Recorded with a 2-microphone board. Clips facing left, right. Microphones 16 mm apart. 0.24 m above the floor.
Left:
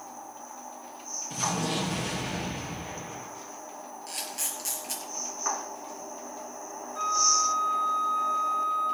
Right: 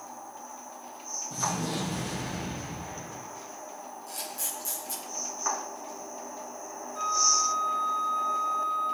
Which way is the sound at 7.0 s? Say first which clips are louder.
Left 1 dB; 10° left (ahead or behind).